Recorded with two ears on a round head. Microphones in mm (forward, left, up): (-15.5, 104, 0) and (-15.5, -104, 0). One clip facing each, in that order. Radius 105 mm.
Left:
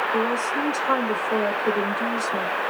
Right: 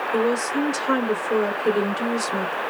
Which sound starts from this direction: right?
A woman speaking, at 0.1 s.